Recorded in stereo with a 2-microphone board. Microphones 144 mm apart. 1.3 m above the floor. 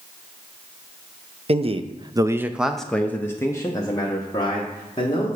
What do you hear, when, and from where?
1.5 s a man speaking: 45° right (ahead or behind), 0.6 m; by 5.3 s 30° left (ahead or behind), 1.8 m